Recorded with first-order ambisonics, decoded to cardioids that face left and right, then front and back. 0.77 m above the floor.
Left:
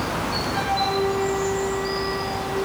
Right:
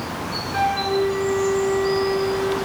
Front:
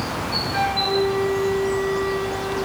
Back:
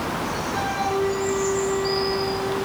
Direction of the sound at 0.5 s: 10° right.